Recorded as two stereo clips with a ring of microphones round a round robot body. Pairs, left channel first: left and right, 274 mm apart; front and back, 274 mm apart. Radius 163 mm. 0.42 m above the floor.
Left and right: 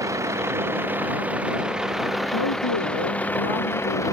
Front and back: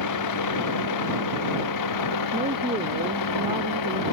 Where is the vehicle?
10° right; by 4.1 s 10° left.